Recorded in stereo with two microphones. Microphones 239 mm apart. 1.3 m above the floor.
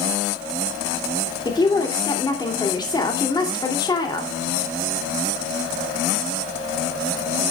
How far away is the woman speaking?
About 2.5 m.